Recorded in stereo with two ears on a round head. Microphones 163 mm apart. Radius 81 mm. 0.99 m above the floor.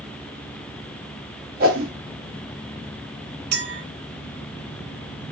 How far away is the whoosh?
About 1.8 m.